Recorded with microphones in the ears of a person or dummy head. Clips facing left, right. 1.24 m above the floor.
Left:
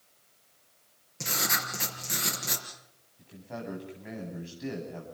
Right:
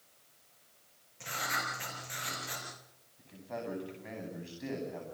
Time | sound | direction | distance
1.2 | writing | 60° left (ahead or behind) | 5.5 m
3.2 | a man speaking | centre (ahead or behind) | 10 m